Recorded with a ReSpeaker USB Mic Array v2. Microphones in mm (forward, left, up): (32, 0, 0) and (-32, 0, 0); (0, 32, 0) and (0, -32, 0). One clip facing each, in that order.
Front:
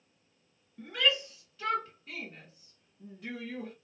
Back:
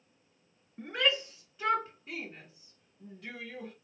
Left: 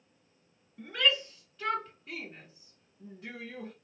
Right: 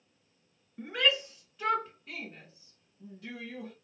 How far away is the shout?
About 2.0 m.